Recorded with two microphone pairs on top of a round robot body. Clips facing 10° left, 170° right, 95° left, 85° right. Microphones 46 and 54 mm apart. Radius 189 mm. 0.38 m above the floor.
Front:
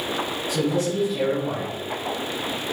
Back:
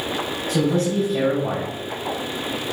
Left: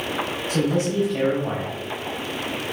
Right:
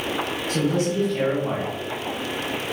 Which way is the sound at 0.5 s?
170° left.